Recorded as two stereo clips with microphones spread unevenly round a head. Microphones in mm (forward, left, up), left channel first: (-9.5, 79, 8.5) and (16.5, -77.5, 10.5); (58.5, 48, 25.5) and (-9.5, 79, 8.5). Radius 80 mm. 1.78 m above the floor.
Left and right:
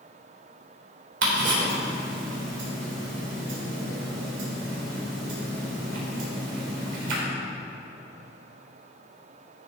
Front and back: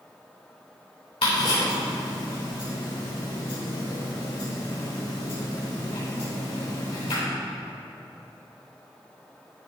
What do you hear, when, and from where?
1.2 s ticking: 70° right, 3 m